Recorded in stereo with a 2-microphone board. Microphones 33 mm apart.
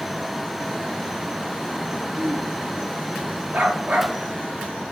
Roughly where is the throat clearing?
Right.